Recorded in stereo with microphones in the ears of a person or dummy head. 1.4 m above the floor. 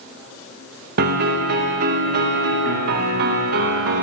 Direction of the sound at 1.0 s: 50° right (ahead or behind).